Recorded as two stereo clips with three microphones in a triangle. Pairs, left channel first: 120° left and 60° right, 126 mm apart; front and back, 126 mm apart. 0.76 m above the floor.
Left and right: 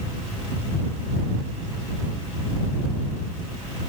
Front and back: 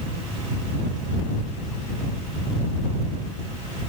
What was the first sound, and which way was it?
Only background noise.